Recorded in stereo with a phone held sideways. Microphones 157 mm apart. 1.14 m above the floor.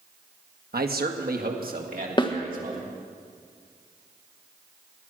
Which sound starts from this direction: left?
A snare drum, at 2.2 s.